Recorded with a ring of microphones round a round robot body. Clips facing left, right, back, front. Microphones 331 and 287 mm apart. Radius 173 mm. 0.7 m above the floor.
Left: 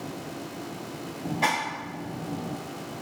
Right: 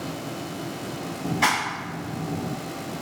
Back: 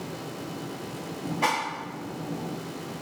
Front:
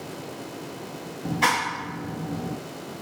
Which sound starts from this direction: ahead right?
A clap, at 1.2 s.